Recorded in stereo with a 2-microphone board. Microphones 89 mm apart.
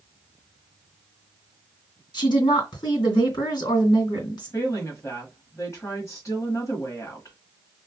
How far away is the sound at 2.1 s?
About 2.5 m.